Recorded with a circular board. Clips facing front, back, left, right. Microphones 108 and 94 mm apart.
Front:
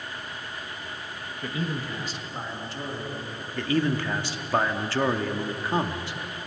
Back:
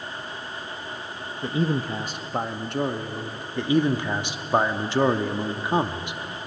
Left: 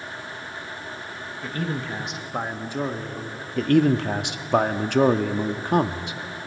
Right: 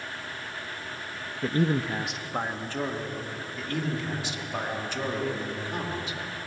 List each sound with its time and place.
1.4 s a man speaking: 120° right, 1.0 m; by 3.5 s 155° left, 2.5 m
3.6 s a man speaking: 110° left, 1.3 m